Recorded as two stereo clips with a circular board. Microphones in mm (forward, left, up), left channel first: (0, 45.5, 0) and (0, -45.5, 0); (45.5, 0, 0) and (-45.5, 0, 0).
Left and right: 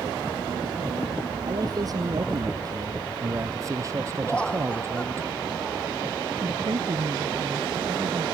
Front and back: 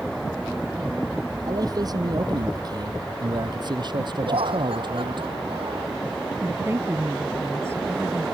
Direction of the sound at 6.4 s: 120° right.